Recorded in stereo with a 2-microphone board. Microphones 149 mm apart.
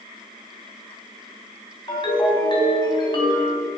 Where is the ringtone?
30° left (ahead or behind), 3 m.